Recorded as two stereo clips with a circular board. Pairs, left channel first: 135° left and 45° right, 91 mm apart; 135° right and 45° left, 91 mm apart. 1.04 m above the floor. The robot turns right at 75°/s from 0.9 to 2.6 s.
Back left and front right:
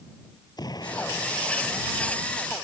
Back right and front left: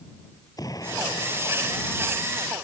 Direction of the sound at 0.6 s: Straight behind.